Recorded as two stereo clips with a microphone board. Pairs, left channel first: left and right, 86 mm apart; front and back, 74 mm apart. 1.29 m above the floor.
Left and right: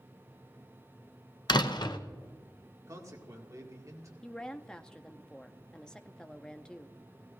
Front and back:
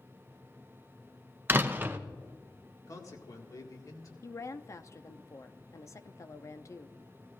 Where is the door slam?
120° left, 0.7 m.